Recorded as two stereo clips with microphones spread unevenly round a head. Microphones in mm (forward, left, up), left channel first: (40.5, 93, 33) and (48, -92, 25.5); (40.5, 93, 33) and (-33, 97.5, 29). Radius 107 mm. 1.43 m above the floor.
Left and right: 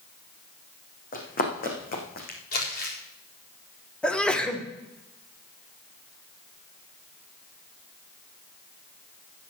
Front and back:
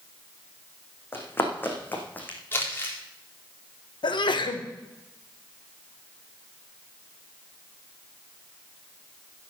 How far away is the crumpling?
About 4 m.